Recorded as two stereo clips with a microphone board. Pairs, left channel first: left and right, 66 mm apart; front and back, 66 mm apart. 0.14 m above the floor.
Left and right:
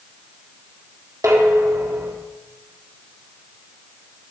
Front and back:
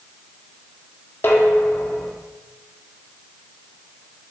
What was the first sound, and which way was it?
Dishes clattering, 55° right.